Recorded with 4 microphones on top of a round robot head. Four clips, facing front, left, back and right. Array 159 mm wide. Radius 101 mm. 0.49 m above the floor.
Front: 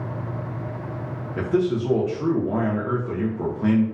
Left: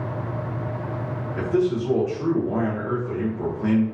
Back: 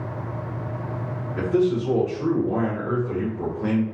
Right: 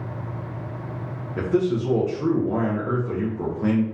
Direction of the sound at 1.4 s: 35° right.